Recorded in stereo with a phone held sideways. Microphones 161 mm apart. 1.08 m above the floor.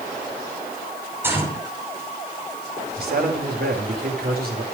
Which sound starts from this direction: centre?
A gunshot, at 1.2 s.